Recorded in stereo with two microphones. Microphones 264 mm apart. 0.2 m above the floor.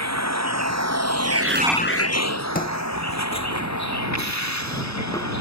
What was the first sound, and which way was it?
A vehicle, 85° right.